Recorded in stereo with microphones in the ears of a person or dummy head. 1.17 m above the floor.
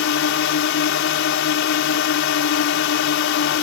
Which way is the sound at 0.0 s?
65° left (ahead or behind).